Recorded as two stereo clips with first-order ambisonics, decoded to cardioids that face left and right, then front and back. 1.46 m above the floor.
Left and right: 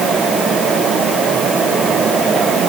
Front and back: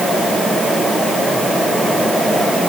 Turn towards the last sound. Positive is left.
No sound to turn to.